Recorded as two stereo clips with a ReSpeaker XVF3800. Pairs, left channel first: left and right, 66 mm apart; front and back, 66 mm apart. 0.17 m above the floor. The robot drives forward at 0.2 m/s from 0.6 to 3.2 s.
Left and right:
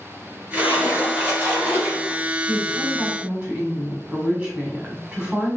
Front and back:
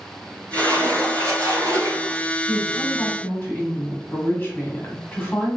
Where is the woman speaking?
40° right, 2 m; by 5.6 s 45° right, 1.9 m.